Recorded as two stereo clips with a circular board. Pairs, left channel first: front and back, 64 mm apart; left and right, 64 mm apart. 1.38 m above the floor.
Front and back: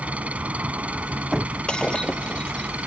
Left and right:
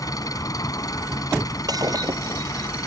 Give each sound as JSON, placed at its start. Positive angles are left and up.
{"t": 0.0, "sound": "an engine running", "azimuth_deg": 110}
{"t": 1.7, "sound": "breaking glass", "azimuth_deg": -75}